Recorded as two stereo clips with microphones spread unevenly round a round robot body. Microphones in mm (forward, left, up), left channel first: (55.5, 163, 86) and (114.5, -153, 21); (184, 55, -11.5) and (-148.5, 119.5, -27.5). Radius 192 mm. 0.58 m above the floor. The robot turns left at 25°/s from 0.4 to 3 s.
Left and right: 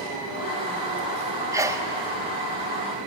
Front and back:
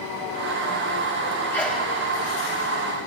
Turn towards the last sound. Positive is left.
turn(degrees=-130)